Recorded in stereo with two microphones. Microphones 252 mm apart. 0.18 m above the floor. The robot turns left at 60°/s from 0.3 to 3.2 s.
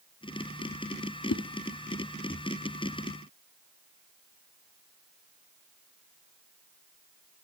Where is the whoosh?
70° left (ahead or behind), 0.7 m; by 1.4 s 65° left (ahead or behind), 0.7 m.